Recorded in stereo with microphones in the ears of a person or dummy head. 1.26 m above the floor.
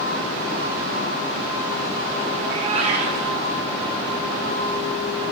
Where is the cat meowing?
35° right (ahead or behind), 1.0 m.